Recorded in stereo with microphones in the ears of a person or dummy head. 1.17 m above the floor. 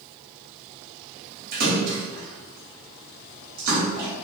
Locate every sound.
1.5 s a splash: 45° right (ahead or behind), 0.9 m